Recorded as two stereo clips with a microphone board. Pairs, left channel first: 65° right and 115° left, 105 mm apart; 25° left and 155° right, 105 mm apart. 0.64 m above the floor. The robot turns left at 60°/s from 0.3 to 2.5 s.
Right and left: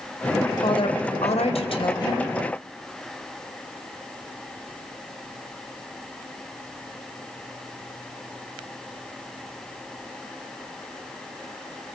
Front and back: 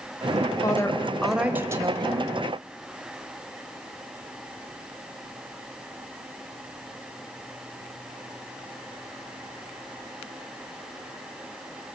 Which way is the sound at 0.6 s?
30° right.